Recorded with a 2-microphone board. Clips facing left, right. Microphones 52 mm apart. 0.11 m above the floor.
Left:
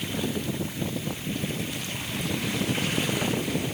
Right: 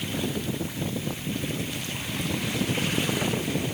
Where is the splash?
I don't hear a splash.